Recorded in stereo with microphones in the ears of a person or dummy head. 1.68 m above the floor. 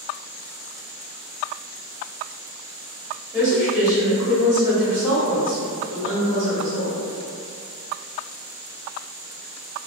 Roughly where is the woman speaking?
Centre.